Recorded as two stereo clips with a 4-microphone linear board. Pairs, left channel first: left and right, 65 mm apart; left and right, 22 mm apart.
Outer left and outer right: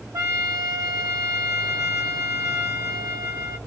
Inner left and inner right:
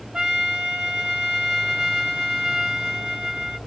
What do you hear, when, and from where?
0.1 s a trumpet: 60° right (ahead or behind), 1.3 m